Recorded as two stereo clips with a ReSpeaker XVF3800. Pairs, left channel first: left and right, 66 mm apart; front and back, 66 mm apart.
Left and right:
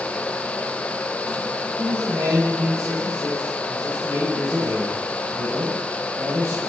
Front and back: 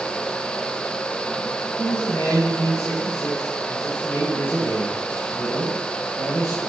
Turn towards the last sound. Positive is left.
turn(degrees=-45)